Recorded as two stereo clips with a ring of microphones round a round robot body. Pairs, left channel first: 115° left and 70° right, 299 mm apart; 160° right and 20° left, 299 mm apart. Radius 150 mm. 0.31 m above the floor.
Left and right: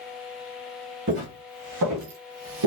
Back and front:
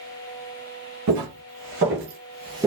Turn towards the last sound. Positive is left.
turn(degrees=-60)